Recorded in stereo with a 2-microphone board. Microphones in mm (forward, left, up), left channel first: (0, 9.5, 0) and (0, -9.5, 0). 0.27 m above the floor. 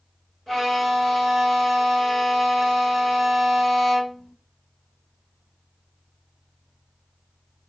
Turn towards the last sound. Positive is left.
turn(degrees=25)  # may be behind; listen again after turning